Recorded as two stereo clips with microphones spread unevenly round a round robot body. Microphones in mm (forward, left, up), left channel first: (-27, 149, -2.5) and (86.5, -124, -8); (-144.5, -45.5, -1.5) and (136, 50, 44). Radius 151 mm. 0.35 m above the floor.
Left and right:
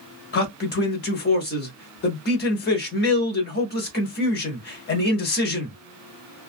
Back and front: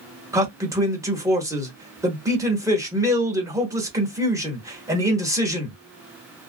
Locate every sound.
0.3 s a man speaking: 105° left, 1.0 m